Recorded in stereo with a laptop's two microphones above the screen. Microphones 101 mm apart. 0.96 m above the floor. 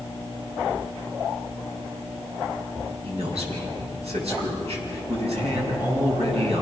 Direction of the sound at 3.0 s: 80° right.